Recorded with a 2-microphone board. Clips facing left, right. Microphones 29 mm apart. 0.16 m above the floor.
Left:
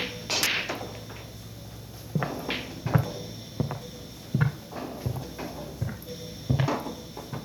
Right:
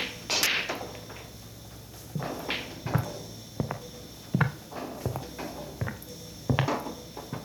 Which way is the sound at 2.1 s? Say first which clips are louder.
Left 2 dB; 40° left (ahead or behind).